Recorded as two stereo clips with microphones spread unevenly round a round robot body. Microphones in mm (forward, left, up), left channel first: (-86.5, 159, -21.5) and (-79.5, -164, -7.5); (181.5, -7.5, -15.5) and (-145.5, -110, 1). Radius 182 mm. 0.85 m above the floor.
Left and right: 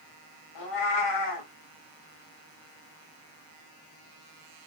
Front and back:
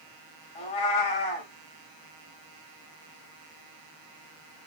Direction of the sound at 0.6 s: 90° left.